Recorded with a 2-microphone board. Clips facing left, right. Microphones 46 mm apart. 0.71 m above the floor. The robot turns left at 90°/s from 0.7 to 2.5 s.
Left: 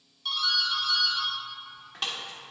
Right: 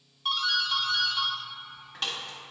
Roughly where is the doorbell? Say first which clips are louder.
Right 1 dB; right.